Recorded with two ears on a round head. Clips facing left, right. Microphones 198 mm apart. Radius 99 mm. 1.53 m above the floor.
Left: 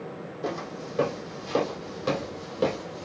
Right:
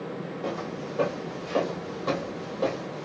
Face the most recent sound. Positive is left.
turn(degrees=35)  # may be behind; listen again after turning